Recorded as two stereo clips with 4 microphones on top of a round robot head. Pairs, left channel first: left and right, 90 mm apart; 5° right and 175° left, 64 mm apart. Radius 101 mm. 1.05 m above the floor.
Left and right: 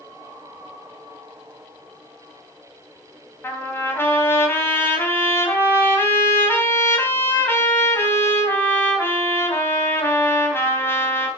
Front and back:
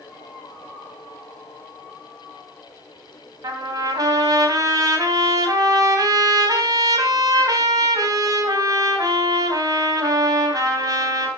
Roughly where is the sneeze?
No sneeze in this recording.